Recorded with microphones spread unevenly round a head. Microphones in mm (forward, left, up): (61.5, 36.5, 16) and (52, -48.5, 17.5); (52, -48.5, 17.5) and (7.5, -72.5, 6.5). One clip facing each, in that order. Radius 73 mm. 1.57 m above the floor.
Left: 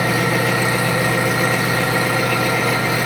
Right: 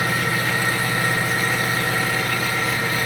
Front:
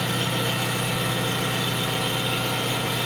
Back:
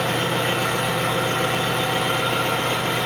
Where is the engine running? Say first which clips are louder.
Left 5 dB, back 4 dB; 130° left, 0.9 m.